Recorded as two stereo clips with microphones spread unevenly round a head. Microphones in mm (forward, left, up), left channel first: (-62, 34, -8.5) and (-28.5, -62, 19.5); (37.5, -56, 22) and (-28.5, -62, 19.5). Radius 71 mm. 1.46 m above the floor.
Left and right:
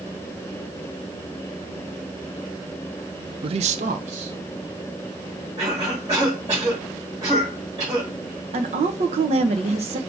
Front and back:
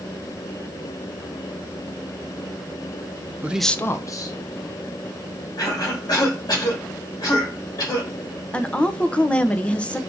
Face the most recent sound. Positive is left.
turn(degrees=-65)